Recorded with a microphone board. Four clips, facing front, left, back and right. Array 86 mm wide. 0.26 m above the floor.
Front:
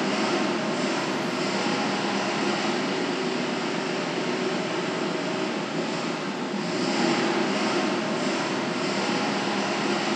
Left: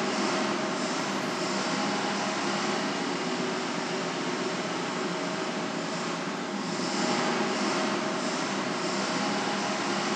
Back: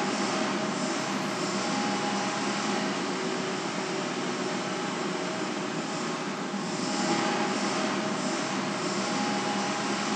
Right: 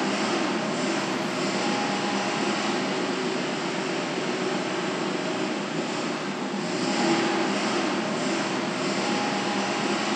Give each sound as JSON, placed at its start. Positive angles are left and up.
{"t": 0.0, "sound": "an engine running", "azimuth_deg": -40, "distance_m": 4.5}